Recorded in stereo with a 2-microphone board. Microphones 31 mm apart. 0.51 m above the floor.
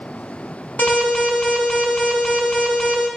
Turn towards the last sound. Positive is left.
turn(degrees=65)  # may be behind; listen again after turning